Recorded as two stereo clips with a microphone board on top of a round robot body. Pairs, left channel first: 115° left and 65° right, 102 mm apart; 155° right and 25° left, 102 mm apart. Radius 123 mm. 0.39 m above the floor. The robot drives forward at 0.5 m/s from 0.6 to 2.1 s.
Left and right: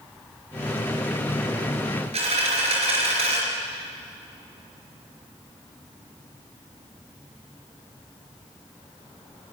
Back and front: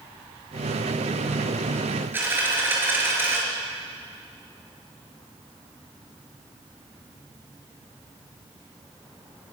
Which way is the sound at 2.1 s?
50° right.